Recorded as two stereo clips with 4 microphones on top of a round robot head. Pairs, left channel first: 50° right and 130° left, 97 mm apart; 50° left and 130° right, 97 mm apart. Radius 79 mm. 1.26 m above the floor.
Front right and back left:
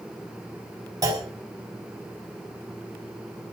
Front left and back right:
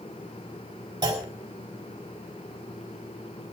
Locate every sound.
1.0 s a clunk: 175° right, 4 m